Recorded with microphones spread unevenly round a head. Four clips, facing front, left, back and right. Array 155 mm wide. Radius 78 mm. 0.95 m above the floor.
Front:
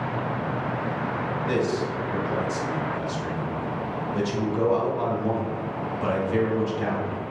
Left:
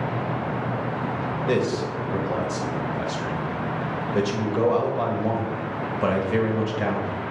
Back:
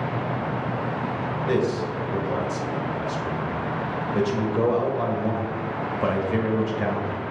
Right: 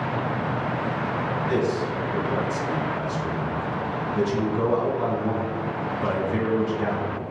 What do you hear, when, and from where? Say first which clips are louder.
1.5 s a man speaking: left 2 dB, back 2 dB; 110° left, 1.6 m